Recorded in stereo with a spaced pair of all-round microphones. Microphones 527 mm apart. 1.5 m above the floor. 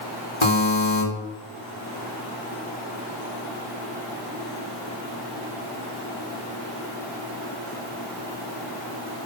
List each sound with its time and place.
0.4 s a buzzer: 60° left (ahead or behind), 4.5 m